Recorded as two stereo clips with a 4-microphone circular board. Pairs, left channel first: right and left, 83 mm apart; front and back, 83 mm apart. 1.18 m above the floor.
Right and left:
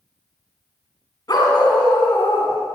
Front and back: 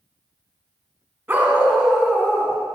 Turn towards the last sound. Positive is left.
turn(degrees=-75)